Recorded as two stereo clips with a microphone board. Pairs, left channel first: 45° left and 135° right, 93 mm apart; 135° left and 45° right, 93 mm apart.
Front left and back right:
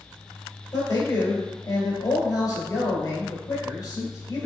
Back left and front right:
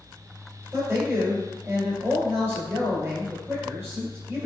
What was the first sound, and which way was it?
A man speaking, 10° left.